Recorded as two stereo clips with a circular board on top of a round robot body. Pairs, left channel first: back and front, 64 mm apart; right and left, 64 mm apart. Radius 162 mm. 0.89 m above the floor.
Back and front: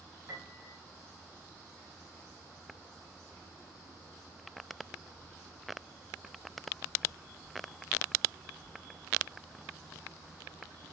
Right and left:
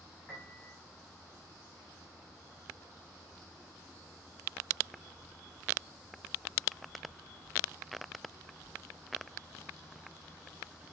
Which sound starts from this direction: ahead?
A piano, at 0.3 s.